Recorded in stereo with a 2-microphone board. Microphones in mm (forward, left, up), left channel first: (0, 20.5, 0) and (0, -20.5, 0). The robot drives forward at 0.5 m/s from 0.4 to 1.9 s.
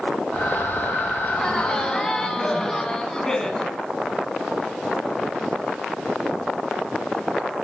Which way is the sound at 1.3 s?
15° left (ahead or behind).